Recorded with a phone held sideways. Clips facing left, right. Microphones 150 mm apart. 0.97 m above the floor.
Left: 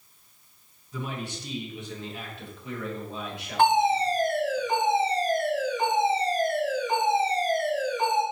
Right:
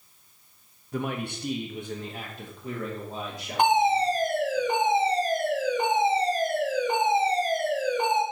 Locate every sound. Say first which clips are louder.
0.9 s a man speaking: right 4 dB; 55° right (ahead or behind), 0.9 m; by 4.6 s 30° right (ahead or behind), 3 m
3.6 s a fire alarm: even; 15° right (ahead or behind), 3 m